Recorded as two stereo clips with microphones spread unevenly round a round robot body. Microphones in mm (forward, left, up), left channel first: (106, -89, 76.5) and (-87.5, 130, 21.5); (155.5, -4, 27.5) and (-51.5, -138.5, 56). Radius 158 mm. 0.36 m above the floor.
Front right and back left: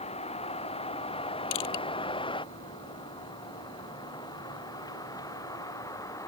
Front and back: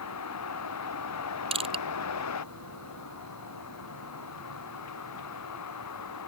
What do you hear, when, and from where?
0.0 s a vehicle: 20° left; by 6.3 s 30° left
1.5 s crushing: 80° right